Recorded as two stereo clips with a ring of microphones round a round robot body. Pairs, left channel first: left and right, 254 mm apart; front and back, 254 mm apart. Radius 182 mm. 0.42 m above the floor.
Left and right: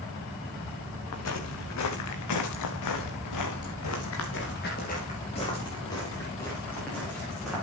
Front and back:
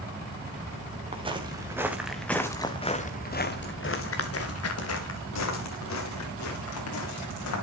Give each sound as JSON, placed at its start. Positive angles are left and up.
{"t": 1.1, "sound": "footsteps", "azimuth_deg": 110, "distance_m": 3.5}